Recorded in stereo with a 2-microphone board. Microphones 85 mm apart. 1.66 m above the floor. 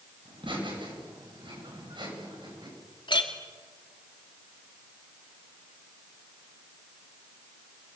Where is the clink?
65° left (ahead or behind), 2.5 m.